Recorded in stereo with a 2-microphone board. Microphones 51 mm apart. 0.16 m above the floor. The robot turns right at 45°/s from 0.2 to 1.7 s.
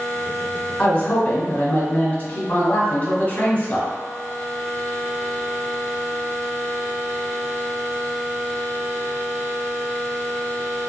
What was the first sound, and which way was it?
A man speaking, 40° left.